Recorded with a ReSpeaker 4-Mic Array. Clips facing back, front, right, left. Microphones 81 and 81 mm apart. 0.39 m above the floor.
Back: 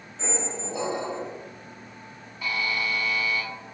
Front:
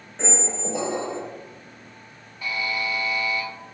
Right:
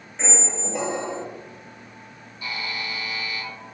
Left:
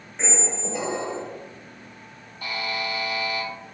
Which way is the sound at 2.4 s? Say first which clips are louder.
Front 1 dB, left 3 dB; 90° left.